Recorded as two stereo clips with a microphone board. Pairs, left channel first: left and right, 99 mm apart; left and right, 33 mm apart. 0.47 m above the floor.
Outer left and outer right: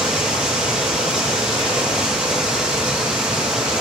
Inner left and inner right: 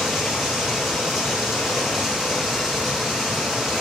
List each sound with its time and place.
0.0 s running water: 10° right (ahead or behind), 6 m